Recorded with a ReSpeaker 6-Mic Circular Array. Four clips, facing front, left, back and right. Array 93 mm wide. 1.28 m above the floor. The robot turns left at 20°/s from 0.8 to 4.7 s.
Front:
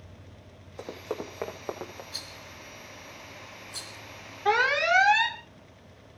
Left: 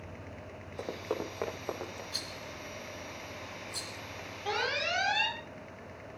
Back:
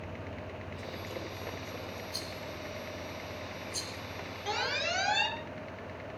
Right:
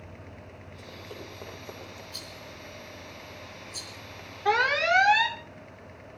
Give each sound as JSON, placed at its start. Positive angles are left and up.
{"t": 0.8, "sound": "running footsteps", "azimuth_deg": 55, "distance_m": 5.0}
{"t": 2.1, "sound": "a rattle", "azimuth_deg": 60, "distance_m": 3.0}
{"t": 4.5, "sound": "an alarm", "azimuth_deg": -40, "distance_m": 2.0}